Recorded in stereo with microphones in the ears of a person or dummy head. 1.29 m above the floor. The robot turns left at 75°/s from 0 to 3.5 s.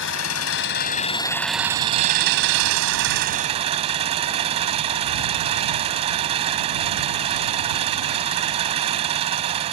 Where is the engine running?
115° left; by 9.7 s 150° right.